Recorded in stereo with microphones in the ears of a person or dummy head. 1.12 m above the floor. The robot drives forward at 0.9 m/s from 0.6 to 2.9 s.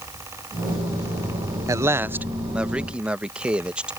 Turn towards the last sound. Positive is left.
turn(degrees=-5)  # may be behind; listen again after turning